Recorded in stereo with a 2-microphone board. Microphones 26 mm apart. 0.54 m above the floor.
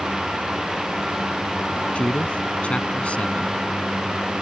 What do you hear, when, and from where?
1.9 s a man speaking: 55° left (ahead or behind)